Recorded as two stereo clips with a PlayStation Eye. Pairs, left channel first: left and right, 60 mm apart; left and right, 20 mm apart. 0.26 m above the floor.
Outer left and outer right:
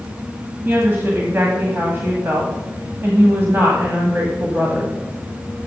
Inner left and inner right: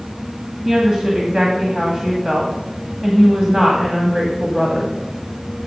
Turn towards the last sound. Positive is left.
turn(degrees=-40)  # may be behind; listen again after turning